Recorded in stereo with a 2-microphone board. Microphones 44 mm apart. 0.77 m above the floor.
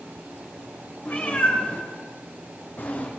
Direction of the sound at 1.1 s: 45° left (ahead or behind).